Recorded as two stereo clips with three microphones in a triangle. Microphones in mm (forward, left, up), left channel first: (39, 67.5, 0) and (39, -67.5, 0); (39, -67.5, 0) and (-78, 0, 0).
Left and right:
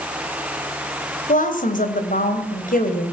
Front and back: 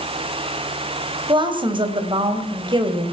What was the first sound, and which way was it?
A woman speaking, 100° left.